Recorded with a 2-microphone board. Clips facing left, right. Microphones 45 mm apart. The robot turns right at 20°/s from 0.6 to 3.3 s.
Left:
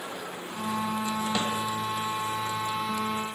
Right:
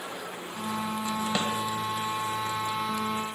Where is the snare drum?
25° right (ahead or behind), 2.5 m.